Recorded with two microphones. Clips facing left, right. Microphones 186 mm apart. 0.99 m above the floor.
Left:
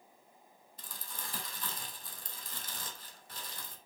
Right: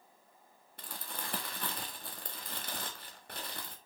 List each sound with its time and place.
0.8 s crumpling: 75° right (ahead or behind), 1.5 m